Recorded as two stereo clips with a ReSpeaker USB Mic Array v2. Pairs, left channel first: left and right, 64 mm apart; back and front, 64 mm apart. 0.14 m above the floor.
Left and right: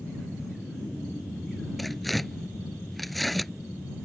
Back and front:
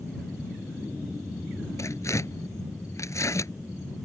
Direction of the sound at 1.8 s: 175° left.